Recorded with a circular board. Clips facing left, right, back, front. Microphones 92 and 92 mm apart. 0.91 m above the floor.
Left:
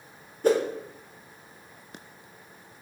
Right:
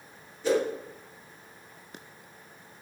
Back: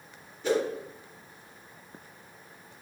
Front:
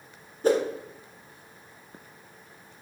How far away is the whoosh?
About 0.6 m.